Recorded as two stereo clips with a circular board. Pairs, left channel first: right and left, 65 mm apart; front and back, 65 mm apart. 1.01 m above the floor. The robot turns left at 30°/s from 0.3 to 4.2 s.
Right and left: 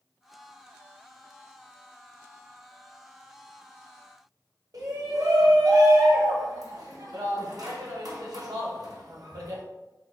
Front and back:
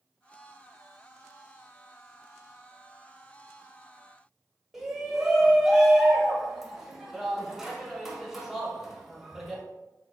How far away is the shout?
About 1.0 m.